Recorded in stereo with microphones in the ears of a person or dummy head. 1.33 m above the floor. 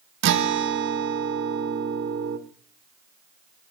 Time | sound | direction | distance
0.2 | a guitar | 65° right (ahead or behind) | 1.1 m